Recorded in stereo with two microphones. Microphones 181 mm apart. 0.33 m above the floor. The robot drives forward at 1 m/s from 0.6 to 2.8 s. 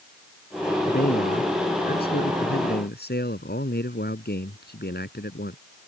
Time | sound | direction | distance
0.8 | a man speaking | 60° left (ahead or behind) | ?